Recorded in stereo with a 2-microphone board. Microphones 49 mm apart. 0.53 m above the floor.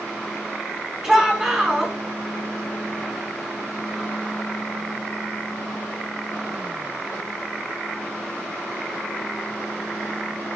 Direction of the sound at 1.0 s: 15° right (ahead or behind).